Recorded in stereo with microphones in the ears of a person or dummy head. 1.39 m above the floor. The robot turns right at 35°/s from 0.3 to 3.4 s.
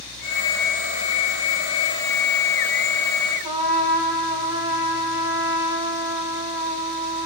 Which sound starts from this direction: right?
A trumpet, at 3.4 s.